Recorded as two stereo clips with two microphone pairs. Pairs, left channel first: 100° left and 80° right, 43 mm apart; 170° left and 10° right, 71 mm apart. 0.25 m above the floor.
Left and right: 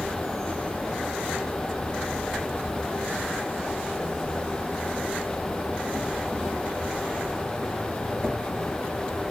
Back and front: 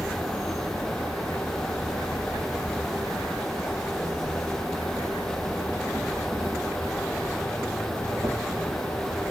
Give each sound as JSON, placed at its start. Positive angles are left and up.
{"t": 0.0, "sound": "an insect", "azimuth_deg": -155, "distance_m": 4.0}